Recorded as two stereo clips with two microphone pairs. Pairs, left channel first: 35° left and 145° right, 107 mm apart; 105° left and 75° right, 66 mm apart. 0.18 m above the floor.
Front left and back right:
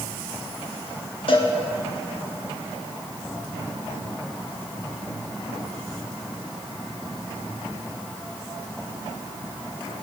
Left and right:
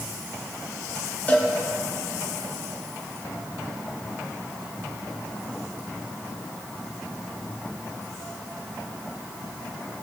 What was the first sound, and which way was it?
A cowbell, 45° left.